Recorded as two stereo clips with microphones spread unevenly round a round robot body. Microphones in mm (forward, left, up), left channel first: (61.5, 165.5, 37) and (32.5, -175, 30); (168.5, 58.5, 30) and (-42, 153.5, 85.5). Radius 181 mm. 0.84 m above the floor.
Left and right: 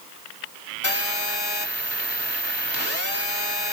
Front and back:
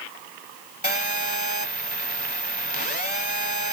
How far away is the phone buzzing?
About 1.8 m.